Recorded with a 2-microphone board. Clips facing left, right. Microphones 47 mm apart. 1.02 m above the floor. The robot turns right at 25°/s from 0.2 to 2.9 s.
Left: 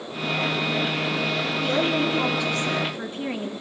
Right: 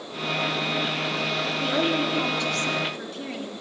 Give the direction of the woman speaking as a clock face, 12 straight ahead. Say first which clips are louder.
Left 1 dB; 12 o'clock.